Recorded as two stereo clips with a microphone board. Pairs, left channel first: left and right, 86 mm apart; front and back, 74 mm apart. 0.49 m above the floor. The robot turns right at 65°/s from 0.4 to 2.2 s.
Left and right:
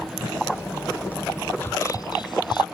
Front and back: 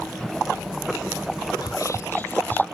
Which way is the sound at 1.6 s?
25° left.